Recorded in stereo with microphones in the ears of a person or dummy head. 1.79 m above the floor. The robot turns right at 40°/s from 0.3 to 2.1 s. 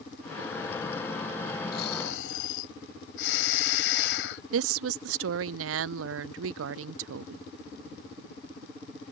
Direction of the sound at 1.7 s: 60° left (ahead or behind).